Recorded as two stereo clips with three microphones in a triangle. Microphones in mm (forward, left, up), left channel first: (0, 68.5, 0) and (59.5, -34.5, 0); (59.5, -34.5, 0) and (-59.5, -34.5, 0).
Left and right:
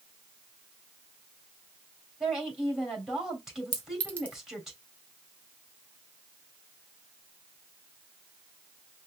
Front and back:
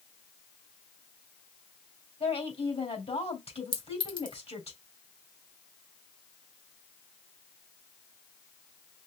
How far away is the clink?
About 1.6 m.